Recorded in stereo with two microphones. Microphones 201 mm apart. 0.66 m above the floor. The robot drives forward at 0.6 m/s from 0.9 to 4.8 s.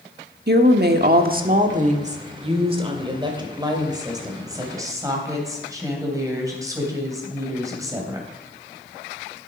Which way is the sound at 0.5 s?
55° right (ahead or behind).